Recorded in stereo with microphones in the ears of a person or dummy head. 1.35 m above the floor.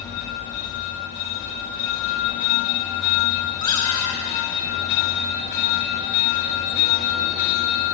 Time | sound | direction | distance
3.6 | a squeak | 25° left (ahead or behind) | 8 m